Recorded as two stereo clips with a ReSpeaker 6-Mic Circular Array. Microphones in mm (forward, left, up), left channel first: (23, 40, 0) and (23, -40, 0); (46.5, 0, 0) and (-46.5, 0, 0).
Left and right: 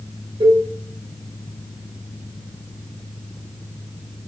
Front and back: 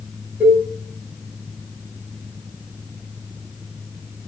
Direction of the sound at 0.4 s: 110° right.